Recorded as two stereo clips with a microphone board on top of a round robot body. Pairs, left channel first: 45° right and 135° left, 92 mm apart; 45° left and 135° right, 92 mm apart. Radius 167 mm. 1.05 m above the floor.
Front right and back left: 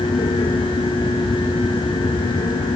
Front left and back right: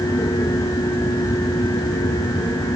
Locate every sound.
Only background noise.